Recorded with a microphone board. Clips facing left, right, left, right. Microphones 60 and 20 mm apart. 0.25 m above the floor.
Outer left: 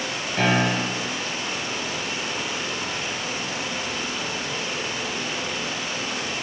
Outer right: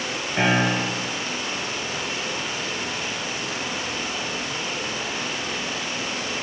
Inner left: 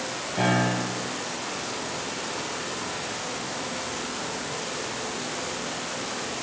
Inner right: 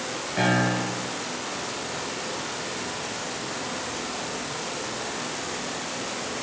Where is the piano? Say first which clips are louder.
Outer right 1 dB, inner right 1 dB; 20° right (ahead or behind), 4.5 m.